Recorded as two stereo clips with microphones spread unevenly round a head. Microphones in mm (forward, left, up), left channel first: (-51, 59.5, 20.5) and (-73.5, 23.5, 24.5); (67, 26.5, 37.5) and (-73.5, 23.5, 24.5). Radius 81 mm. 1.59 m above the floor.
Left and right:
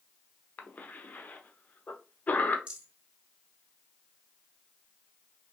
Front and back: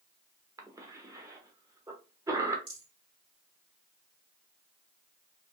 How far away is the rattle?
About 2 m.